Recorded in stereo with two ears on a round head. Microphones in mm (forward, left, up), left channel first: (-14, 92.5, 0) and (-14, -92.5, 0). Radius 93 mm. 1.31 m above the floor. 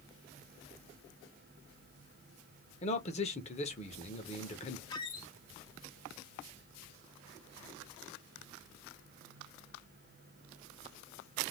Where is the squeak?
20° left (ahead or behind), 0.8 m.